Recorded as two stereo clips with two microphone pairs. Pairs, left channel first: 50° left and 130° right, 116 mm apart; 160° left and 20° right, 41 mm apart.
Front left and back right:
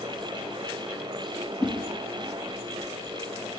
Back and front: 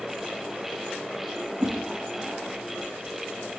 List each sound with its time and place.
1.6 s a whoosh: 35° right, 1.3 m